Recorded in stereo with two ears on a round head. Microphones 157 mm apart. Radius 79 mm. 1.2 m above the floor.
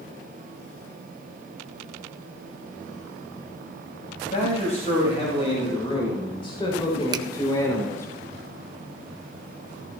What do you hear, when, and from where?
4.2 s a man speaking: 45° left (ahead or behind), 6 m; by 8.1 s 15° left (ahead or behind), 3.5 m
7.1 s a finger snap: 25° right (ahead or behind), 0.7 m